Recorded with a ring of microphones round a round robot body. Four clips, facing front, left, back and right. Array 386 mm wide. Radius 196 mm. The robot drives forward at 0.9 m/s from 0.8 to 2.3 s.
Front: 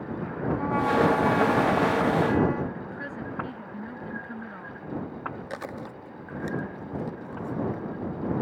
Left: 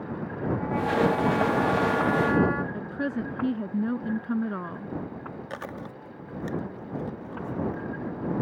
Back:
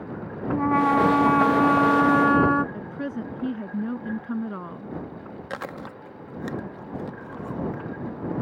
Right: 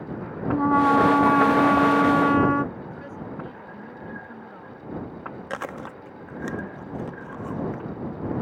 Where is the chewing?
125° right.